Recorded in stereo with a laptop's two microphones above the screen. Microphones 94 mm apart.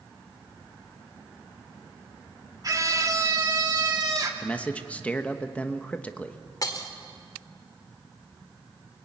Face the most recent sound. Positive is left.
turn(degrees=40)  # may be behind; listen again after turning